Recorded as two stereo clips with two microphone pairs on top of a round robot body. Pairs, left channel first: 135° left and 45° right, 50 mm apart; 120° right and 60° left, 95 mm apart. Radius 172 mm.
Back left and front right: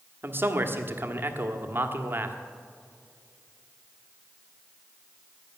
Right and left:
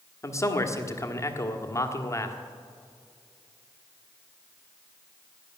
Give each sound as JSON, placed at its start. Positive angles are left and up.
{"t": 0.2, "sound": "a man speaking", "azimuth_deg": -75, "distance_m": 1.9}